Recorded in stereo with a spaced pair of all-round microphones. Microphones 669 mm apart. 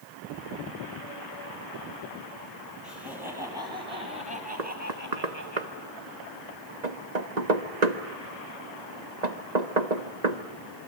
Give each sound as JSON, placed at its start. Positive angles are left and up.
{"t": 2.8, "sound": "laughter", "side_deg": 0, "distance_m": 8.0}
{"t": 4.6, "sound": "knocking", "side_deg": -80, "distance_m": 1.6}